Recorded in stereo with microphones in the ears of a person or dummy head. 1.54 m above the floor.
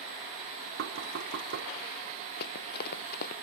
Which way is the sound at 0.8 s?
65° right (ahead or behind).